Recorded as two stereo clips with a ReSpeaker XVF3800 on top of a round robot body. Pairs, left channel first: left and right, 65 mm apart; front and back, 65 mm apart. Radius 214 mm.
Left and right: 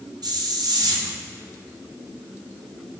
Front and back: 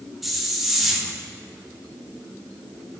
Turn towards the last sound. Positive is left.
turn(degrees=-90)